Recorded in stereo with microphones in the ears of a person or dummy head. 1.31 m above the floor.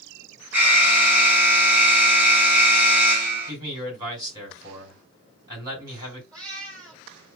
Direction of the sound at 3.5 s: 25° right (ahead or behind).